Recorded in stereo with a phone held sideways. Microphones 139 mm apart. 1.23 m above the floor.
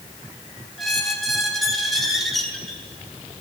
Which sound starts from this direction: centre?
A squeak, at 0.8 s.